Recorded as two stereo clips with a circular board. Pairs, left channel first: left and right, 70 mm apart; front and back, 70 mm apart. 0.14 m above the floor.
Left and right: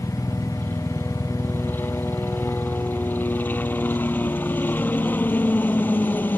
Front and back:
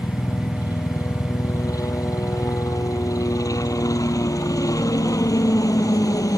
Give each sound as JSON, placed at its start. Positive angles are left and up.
{"t": 0.0, "sound": "a helicopter", "azimuth_deg": 30}